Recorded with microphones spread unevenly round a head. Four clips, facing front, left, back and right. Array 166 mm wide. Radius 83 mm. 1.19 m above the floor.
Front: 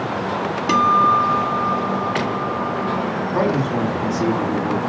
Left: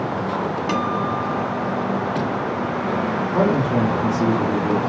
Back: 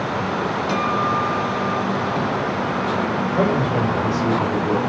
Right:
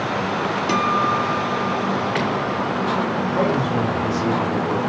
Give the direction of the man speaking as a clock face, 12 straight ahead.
10 o'clock.